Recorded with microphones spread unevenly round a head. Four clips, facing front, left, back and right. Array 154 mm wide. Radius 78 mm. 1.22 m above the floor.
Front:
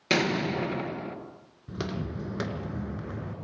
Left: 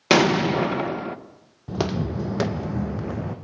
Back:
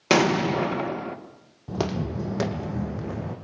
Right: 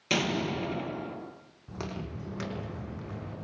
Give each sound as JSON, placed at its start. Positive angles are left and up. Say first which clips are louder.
{"t": 0.1, "sound": "an explosion", "louder": "left 11 dB, back 6 dB", "azimuth_deg": 105, "distance_m": 1.6}
{"t": 1.7, "sound": "footsteps", "louder": "left 13 dB, back 6 dB", "azimuth_deg": 110, "distance_m": 1.9}